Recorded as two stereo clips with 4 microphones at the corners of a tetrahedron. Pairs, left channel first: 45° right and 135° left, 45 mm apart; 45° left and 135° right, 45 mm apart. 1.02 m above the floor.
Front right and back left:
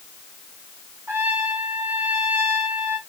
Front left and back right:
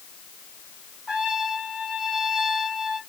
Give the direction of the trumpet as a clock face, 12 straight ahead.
7 o'clock.